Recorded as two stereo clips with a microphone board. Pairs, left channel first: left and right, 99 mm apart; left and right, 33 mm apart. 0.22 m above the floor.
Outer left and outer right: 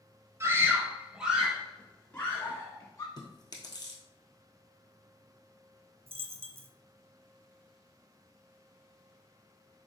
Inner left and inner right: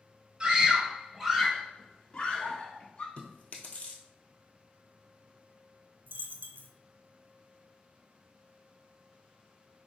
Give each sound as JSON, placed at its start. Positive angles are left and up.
{"t": 0.4, "sound": "a scream", "side_deg": -30, "distance_m": 1.0}
{"t": 3.2, "sound": "chewing", "side_deg": 45, "distance_m": 1.2}
{"t": 6.1, "sound": "a dropped coin", "side_deg": -75, "distance_m": 0.6}